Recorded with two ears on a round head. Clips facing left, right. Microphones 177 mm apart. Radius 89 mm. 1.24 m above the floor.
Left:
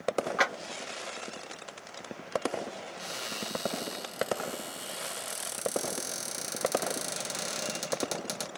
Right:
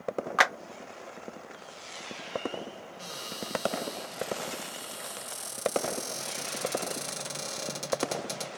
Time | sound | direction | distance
0.4 | a clap | 65° right (ahead or behind) | 0.9 m
3.0 | a cupboard door | 20° left (ahead or behind) | 1.4 m